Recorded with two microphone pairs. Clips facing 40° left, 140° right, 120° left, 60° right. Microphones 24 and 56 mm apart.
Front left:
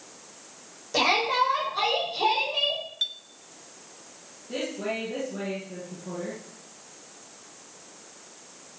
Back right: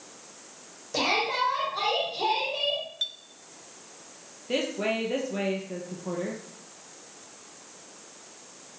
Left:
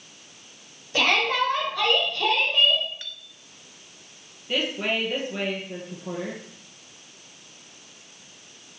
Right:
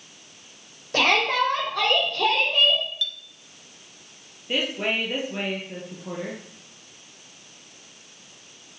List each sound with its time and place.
0.9 s a shout: 40° right, 7 m; by 2.8 s 45° right, 5 m
3.0 s a clink: 120° left, 0.9 m
4.5 s a woman speaking: 135° right, 3 m